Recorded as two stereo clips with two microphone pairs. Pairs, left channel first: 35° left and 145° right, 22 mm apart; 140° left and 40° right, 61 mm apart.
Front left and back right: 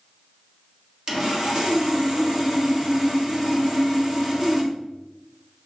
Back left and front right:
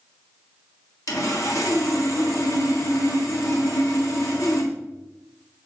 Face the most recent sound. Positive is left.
turn(degrees=165)